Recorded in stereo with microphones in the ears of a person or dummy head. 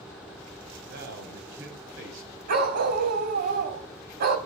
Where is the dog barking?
50° right (ahead or behind), 3.5 m.